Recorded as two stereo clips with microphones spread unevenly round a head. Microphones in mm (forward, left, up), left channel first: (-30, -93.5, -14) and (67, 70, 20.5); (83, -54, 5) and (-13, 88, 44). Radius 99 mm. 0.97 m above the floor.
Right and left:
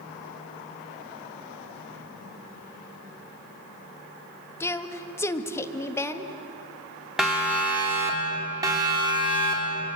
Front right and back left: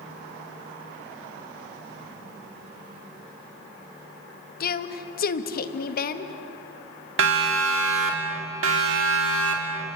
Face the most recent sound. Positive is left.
turn(degrees=125)